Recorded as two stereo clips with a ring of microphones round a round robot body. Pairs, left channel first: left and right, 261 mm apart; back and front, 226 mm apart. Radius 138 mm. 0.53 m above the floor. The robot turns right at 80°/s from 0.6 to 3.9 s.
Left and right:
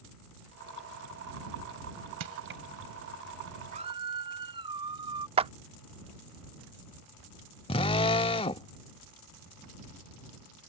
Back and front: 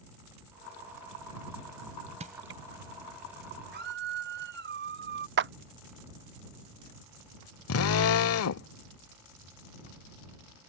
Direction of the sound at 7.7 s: 160° left.